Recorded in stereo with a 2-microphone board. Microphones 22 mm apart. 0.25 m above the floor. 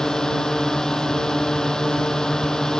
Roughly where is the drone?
Left.